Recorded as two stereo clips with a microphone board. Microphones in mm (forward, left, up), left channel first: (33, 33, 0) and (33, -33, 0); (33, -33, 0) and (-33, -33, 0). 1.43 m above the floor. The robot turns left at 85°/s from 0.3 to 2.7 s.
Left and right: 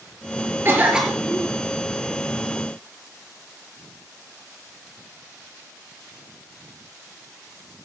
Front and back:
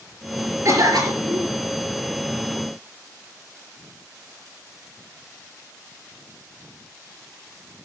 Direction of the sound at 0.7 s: 140° right.